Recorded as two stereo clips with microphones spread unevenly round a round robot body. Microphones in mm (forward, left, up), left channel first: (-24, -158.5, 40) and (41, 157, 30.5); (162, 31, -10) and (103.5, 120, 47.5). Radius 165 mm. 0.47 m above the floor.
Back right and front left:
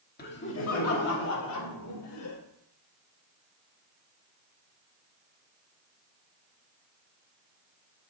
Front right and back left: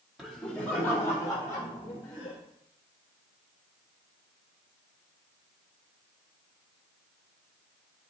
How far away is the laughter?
About 1.4 m.